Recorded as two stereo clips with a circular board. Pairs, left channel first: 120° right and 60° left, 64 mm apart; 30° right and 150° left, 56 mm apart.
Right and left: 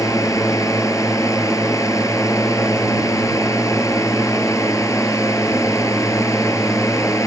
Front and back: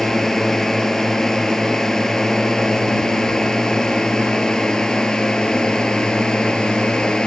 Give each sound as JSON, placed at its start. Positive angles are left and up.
{"t": 0.0, "sound": "a drone", "azimuth_deg": -110}